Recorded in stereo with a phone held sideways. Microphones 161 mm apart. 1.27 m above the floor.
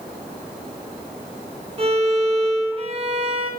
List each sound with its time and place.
1.8 s a violin: 40° right (ahead or behind), 1.3 m